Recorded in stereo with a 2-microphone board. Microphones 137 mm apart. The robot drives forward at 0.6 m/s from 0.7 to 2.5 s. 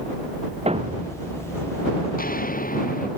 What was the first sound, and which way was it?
A thud, 45° right (ahead or behind).